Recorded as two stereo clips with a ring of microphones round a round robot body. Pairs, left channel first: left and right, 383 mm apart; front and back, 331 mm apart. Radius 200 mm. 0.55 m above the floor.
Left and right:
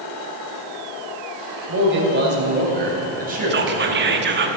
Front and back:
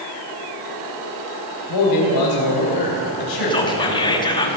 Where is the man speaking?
30° right, 3 m; by 4.5 s 15° right, 4.5 m.